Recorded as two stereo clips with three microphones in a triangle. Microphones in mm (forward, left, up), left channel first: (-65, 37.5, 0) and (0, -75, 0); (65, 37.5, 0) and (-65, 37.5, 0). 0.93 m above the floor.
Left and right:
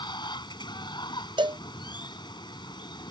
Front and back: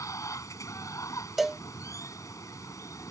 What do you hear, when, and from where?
0.0 s running water: 65° left
1.4 s a cowbell: 95° right